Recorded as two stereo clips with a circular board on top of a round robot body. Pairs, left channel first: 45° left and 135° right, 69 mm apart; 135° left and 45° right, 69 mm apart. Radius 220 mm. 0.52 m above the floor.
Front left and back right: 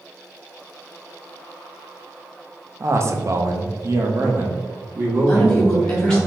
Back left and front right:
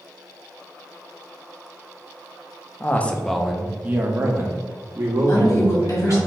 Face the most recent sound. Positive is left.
turn(degrees=120)